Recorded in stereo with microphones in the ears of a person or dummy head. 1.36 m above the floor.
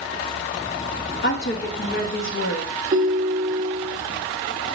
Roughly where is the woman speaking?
Left.